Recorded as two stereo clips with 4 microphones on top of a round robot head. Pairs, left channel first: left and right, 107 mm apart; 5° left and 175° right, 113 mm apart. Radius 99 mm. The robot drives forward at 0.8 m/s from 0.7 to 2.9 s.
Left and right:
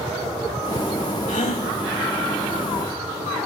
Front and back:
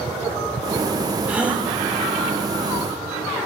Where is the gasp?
105° left, 3.5 m; by 1.7 s 110° left, 3.5 m.